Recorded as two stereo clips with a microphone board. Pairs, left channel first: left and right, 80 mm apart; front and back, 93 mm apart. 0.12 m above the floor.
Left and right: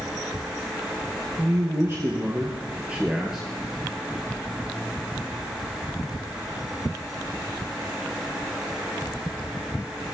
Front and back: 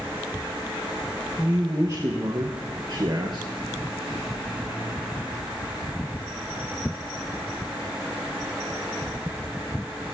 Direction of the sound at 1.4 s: 125° right.